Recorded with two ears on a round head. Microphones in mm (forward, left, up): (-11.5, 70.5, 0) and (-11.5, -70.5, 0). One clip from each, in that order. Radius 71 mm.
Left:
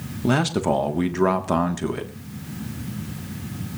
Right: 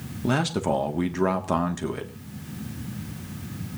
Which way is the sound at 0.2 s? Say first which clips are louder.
Left 3 dB; centre (ahead or behind).